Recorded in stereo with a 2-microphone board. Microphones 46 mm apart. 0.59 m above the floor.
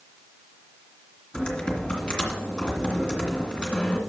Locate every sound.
1.3 s typing on a keyboard: 20° left (ahead or behind), 2 m